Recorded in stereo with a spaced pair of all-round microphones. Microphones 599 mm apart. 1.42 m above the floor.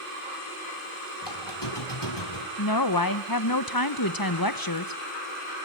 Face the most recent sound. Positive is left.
turn(degrees=35)  # may be behind; listen again after turning